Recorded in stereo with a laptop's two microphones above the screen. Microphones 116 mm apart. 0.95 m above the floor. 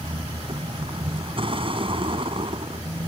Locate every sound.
0.0 s a vehicle: 50° right (ahead or behind)